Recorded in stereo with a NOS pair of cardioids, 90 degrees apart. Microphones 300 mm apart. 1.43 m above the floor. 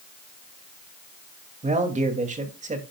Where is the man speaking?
25° right, 2.5 m.